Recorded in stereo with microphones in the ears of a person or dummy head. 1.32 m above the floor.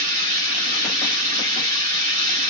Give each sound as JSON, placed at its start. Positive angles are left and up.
{"t": 0.0, "sound": "running water", "side_deg": -35, "distance_m": 3.5}